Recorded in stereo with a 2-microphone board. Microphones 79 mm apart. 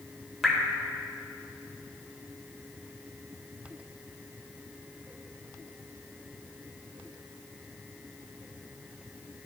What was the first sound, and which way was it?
Dripping, centre (ahead or behind).